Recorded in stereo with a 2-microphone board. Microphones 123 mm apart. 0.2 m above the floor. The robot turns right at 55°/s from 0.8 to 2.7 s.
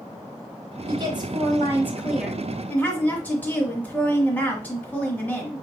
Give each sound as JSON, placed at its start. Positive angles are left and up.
{"t": 0.9, "sound": "a woman speaking", "azimuth_deg": -80, "distance_m": 1.7}